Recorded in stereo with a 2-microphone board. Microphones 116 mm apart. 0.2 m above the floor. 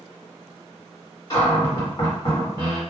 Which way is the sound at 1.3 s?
35° left (ahead or behind).